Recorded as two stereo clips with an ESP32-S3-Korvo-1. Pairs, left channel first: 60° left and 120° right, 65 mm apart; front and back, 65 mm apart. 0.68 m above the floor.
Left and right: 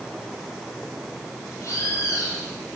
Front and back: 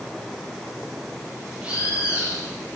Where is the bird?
105° left, 5.5 m.